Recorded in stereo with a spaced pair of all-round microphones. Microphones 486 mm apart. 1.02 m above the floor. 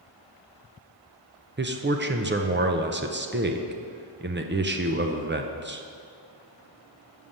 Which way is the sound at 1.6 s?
25° right (ahead or behind).